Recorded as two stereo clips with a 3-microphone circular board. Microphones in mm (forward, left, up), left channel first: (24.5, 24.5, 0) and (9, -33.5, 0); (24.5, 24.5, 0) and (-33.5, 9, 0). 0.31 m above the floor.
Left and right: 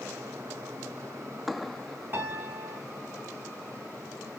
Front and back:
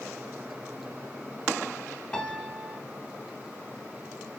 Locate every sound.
2.1 s a piano: 60° right, 0.9 m